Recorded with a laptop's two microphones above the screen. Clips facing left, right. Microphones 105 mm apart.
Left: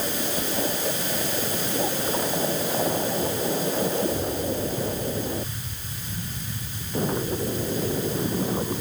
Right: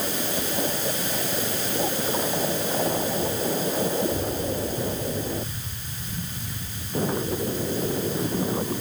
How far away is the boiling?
No boiling in this recording.